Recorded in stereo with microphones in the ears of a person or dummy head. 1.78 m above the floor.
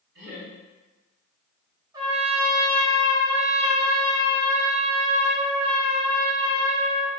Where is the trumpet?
25° right (ahead or behind), 1.0 m.